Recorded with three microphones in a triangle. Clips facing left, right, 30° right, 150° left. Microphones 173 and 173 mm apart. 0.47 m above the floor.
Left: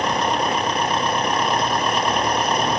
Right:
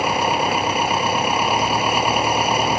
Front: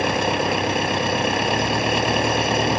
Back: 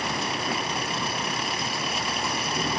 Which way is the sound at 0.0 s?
10° right.